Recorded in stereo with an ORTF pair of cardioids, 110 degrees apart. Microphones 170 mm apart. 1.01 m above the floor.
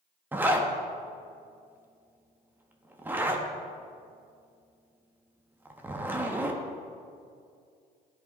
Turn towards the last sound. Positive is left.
turn(degrees=-10)